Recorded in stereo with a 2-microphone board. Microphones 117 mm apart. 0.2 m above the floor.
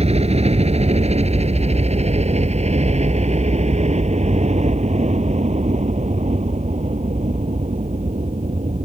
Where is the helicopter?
65° right (ahead or behind); by 8.8 s 75° right (ahead or behind).